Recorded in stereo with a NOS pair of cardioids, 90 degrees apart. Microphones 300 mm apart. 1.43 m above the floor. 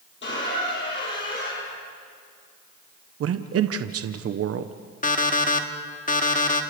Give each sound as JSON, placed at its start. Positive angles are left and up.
{"t": 0.2, "sound": "a squeak", "azimuth_deg": 40, "distance_m": 9.5}
{"t": 3.2, "sound": "a man speaking", "azimuth_deg": -55, "distance_m": 1.1}
{"t": 5.0, "sound": "an alarm clock", "azimuth_deg": 25, "distance_m": 1.8}